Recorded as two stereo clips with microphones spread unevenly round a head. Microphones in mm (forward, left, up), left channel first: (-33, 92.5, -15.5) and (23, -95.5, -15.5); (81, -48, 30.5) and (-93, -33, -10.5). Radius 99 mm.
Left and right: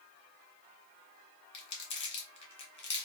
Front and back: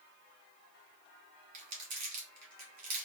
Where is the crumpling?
135° left, 1.6 m.